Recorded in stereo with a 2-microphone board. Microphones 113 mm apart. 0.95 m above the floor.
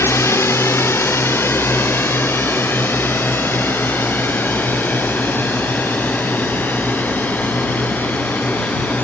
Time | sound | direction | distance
0.0 | a drone | 25° left (ahead or behind) | ?